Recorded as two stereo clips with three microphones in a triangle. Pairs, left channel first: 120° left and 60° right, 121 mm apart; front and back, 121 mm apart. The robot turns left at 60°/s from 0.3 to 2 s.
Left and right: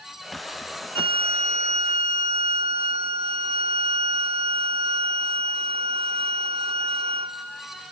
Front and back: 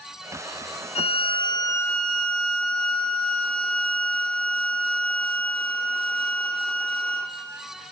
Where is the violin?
20° right, 0.8 m; by 7.4 s 80° right, 0.8 m.